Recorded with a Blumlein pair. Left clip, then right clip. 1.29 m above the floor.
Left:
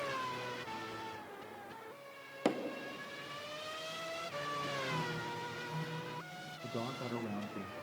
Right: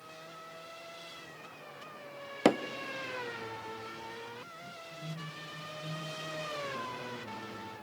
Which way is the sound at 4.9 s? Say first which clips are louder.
Left 6 dB; 55° left.